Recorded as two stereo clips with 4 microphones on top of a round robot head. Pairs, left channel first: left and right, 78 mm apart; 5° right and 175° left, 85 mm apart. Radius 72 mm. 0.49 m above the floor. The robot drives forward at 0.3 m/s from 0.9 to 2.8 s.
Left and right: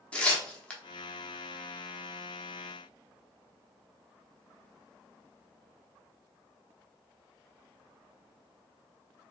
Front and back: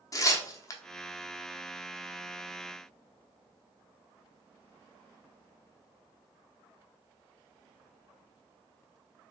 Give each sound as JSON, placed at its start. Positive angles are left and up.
{"t": 0.1, "sound": "tearing paper", "azimuth_deg": 20, "distance_m": 0.9}